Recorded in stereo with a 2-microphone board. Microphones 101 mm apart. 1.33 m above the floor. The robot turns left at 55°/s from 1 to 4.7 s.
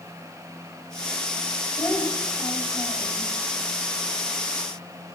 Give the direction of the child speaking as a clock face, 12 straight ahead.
11 o'clock.